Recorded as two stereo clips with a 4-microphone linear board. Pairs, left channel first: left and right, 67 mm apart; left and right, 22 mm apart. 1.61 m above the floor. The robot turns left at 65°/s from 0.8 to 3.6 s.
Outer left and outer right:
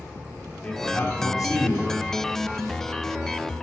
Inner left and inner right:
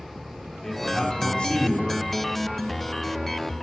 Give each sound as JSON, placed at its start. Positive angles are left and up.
{"t": 0.6, "sound": "a man speaking", "azimuth_deg": 160, "distance_m": 3.5}